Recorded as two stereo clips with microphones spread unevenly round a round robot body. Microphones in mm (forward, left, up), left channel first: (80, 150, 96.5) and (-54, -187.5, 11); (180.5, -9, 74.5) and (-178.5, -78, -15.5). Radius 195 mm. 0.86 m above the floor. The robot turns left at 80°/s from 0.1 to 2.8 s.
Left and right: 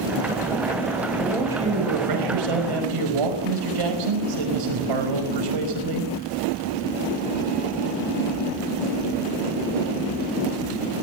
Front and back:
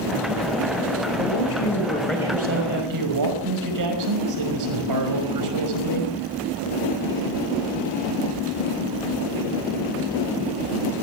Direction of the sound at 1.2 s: 5° right.